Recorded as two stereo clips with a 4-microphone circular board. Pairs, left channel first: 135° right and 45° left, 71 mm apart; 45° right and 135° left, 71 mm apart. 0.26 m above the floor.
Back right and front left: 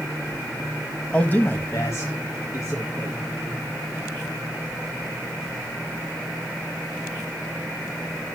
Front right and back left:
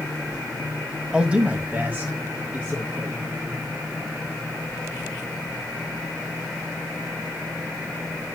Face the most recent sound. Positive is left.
turn(degrees=-170)